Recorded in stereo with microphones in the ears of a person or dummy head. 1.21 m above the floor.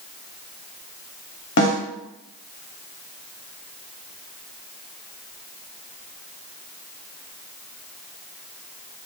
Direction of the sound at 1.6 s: 55° left (ahead or behind).